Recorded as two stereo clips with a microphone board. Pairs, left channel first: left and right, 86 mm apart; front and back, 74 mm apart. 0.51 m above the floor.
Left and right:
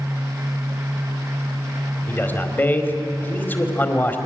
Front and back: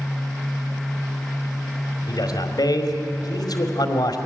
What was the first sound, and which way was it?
A man speaking, 25° left.